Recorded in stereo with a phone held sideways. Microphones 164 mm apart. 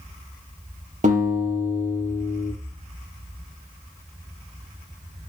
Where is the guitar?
50° right (ahead or behind), 4 m.